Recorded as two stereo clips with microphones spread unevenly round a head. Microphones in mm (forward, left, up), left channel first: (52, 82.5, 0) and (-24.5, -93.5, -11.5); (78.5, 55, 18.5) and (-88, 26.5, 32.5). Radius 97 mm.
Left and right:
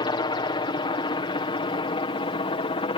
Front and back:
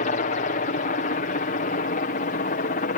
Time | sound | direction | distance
0.0 | a helicopter | 5° left | ?